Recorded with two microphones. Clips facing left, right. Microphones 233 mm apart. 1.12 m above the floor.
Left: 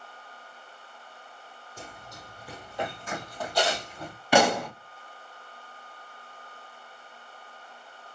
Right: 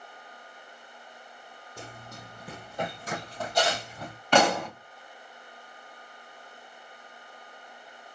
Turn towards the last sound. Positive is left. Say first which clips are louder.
# left 1 dB
turn(degrees=10)  # may be behind; listen again after turning